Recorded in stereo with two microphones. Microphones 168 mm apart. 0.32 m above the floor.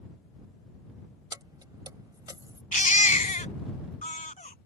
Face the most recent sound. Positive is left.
turn(degrees=50)  # may be behind; listen again after turning